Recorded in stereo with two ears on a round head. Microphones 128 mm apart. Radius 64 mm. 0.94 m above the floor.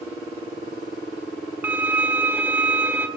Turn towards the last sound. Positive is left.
turn(degrees=-15)  # may be behind; listen again after turning